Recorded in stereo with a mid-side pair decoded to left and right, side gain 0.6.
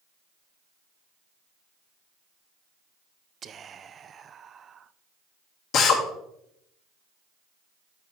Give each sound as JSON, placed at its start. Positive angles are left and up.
{"t": 3.4, "sound": "whispering", "azimuth_deg": -40, "distance_m": 0.6}
{"t": 5.7, "sound": "a drill", "azimuth_deg": 60, "distance_m": 2.0}